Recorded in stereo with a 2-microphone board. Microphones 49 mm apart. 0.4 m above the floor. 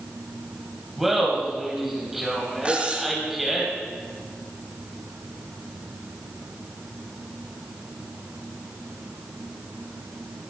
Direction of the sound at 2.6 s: 25° right (ahead or behind).